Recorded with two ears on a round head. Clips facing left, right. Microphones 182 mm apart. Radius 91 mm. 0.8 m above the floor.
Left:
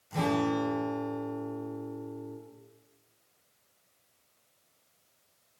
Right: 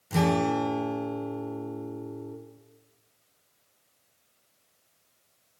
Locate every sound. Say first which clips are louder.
0.1 s a guitar: right 3 dB; 80° right, 3 m